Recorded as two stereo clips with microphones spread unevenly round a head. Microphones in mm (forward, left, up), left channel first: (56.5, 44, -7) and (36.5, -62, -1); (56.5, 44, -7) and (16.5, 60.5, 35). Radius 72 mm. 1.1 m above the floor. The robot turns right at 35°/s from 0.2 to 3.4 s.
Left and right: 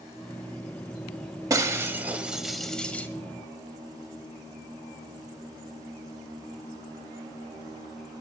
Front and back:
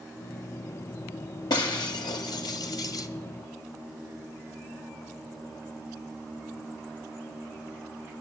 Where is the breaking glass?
50° right, 1.4 m; by 3.1 s 5° left, 1.4 m.